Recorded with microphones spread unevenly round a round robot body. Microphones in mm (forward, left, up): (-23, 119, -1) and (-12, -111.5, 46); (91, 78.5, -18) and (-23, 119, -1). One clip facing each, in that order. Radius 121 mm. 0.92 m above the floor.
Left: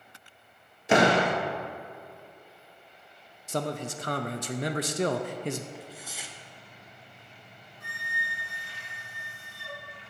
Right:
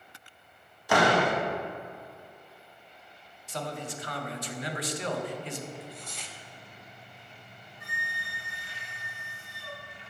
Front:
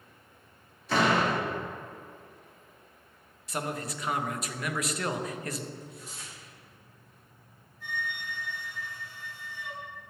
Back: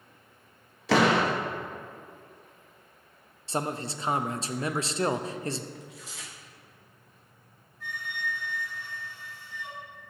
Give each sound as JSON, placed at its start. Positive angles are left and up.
{"t": 0.9, "sound": "a door slam", "azimuth_deg": 155, "distance_m": 0.7}
{"t": 3.5, "sound": "a man speaking", "azimuth_deg": 95, "distance_m": 0.5}
{"t": 5.8, "sound": "tearing paper", "azimuth_deg": 170, "distance_m": 0.6}
{"t": 7.8, "sound": "a flute", "azimuth_deg": -155, "distance_m": 3.0}